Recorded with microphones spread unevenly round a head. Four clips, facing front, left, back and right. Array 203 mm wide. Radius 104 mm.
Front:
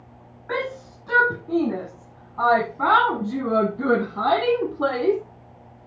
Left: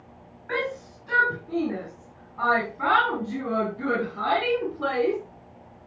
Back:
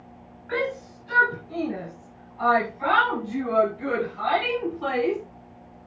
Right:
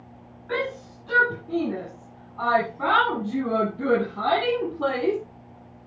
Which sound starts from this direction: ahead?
A shout, at 0.5 s.